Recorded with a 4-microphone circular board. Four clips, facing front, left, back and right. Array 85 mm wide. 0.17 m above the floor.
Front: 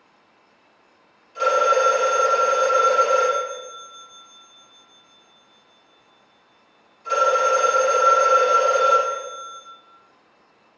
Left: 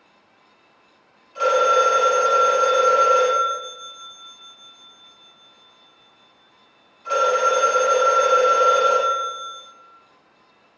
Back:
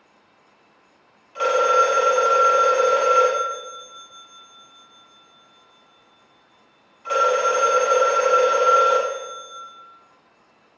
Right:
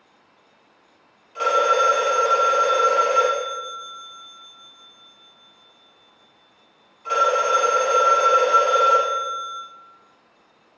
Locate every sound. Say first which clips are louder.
1.4 s a phone ringing: left 1 dB, even; 155° right, 1.0 m